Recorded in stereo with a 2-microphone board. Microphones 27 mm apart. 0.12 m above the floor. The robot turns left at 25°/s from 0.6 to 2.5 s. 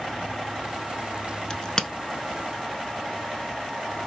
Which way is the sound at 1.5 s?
35° left (ahead or behind).